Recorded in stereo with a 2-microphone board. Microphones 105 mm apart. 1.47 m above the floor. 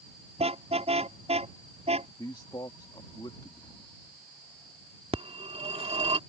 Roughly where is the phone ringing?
Right.